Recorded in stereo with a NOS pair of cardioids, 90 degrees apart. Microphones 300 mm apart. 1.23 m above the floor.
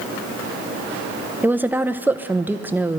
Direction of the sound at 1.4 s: 5° right.